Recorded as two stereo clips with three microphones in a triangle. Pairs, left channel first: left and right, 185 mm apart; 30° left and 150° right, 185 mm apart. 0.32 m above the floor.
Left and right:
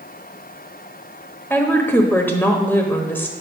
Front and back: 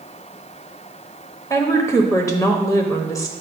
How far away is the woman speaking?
About 1.0 m.